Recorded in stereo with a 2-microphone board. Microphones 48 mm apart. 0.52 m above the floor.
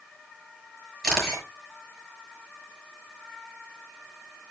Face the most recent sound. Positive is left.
turn(degrees=5)  # may be behind; listen again after turning